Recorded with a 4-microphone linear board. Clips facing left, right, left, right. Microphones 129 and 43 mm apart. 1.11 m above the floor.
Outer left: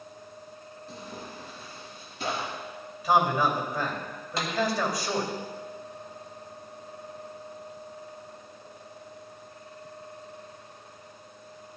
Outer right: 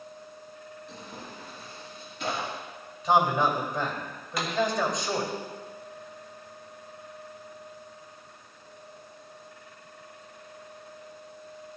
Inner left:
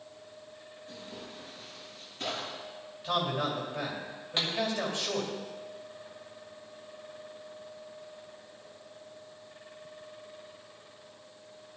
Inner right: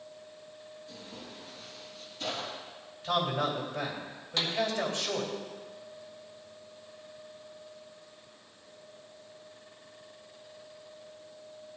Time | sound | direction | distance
0.9 | tearing paper | 40° left (ahead or behind) | 4.5 m
3.0 | a man speaking | 5° left (ahead or behind) | 2.5 m
4.4 | a pop | 30° left (ahead or behind) | 2 m